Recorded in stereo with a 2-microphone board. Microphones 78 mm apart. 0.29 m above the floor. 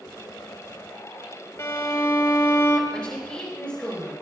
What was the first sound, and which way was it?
A violin, 35° left (ahead or behind).